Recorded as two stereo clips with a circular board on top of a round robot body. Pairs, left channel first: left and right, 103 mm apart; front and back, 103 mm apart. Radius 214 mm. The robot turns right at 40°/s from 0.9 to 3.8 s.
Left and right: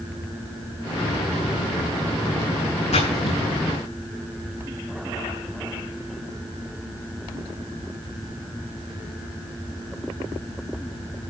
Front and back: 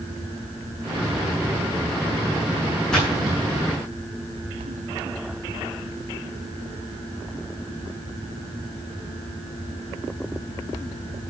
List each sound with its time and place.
2.9 s a splash: 85° left, 9 m; by 3.8 s 120° left, 9 m